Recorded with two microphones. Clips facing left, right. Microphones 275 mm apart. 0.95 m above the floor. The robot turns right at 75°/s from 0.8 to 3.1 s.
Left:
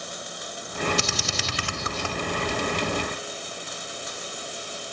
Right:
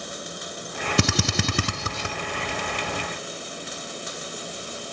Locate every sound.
1.0 s a drill: 65° right (ahead or behind), 0.9 m; by 2.2 s 15° right (ahead or behind), 0.9 m